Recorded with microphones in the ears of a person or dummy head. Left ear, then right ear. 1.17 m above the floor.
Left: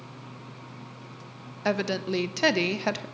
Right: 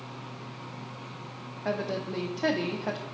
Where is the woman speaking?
75° left (ahead or behind), 0.6 m.